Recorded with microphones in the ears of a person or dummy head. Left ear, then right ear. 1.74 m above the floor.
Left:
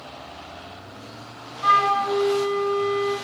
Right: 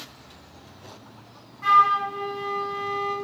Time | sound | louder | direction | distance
1.6 | a flute | right 1 dB | 30° right (ahead or behind) | 0.8 m